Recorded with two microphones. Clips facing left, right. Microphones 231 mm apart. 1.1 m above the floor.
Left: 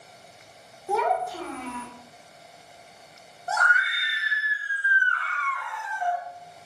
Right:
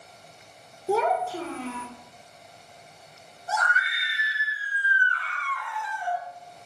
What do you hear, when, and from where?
0.9 s a child speaking: 35° right (ahead or behind), 0.6 m
3.5 s a scream: 60° left (ahead or behind), 0.5 m